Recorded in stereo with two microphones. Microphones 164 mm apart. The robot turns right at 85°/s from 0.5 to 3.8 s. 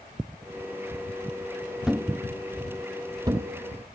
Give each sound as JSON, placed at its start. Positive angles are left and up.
{"t": 1.9, "sound": "a thud", "side_deg": -5, "distance_m": 0.5}